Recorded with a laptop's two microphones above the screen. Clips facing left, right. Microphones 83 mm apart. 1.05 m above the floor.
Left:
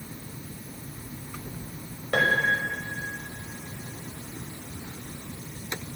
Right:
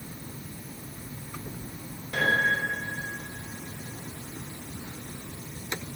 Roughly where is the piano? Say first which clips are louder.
Left 2 dB; left.